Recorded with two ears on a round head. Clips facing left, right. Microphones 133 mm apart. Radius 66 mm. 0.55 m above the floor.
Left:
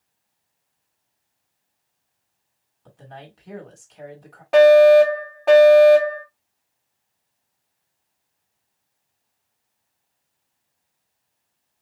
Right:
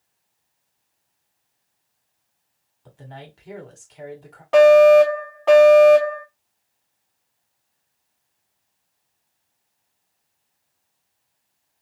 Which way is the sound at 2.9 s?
Centre (ahead or behind).